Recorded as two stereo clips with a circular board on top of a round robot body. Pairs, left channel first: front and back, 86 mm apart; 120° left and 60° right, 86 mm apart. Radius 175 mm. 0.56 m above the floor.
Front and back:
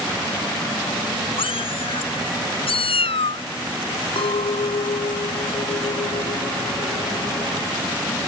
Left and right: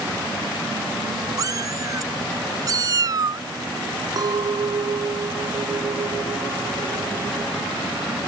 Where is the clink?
15° right.